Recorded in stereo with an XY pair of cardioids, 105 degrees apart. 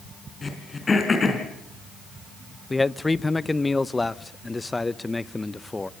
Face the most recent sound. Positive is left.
turn(degrees=15)